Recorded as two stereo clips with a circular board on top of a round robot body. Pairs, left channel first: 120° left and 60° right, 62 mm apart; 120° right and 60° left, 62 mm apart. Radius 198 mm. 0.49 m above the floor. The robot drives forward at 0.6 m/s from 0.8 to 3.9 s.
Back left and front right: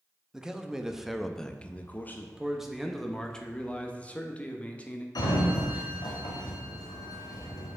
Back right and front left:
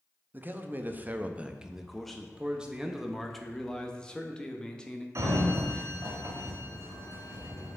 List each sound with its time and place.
0.3 s a man speaking: 20° left, 0.8 m; by 2.3 s 160° left, 0.8 m
2.4 s a man speaking: 10° left, 1.0 m; by 5.0 s 175° left, 1.0 m
5.2 s a sliding door: 105° left, 0.9 m